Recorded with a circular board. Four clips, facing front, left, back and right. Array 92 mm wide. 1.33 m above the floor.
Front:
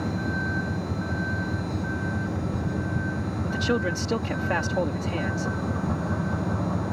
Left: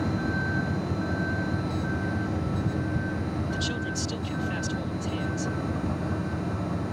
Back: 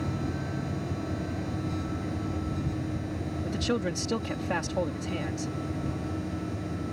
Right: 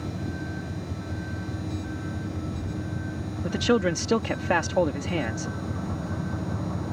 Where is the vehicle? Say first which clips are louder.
Left 5 dB, front 4 dB; 35° left; by 6.9 s straight ahead.